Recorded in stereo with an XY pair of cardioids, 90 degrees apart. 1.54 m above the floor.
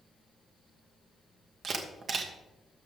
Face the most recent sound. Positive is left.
turn(degrees=-60)